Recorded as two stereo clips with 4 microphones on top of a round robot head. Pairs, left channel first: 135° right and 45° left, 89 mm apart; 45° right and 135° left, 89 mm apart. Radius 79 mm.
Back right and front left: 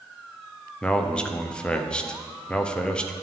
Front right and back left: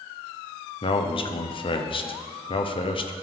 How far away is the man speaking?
About 0.8 m.